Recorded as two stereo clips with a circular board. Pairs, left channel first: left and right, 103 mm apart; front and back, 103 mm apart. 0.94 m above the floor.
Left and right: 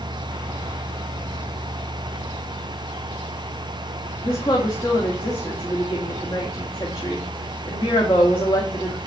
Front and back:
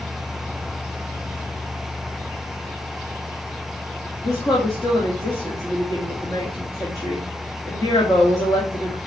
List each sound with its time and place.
4.2 s a woman speaking: 55° left, 2.5 m